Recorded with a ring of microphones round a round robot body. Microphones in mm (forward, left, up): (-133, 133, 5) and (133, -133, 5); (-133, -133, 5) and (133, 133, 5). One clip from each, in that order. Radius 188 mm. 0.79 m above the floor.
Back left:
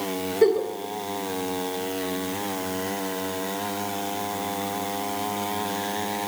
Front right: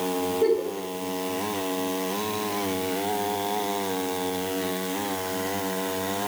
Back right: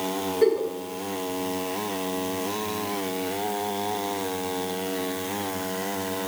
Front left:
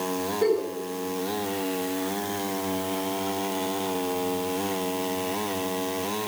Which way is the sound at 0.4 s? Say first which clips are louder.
Back left 4 dB, back right 3 dB; 155° left.